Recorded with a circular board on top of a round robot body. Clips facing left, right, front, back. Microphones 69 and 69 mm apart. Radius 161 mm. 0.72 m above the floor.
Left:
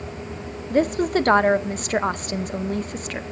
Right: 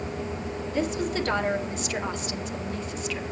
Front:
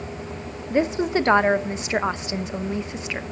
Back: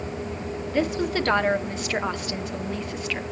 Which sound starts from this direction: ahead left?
A woman speaking, at 0.7 s.